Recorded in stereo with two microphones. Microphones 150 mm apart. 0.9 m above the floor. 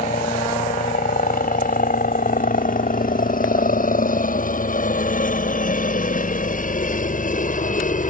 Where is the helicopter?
70° left (ahead or behind); by 8.1 s 60° left (ahead or behind).